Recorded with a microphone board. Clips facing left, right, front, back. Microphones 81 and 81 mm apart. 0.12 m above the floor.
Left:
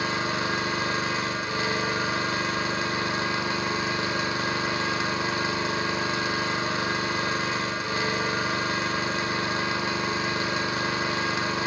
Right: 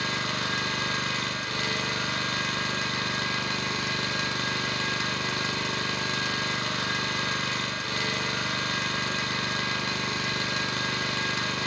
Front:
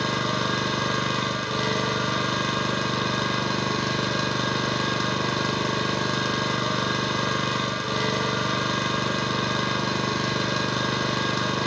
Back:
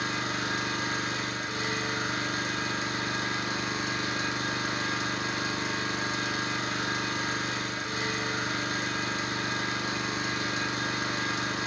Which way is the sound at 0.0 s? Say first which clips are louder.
Left 3 dB, front 6 dB; 10° left.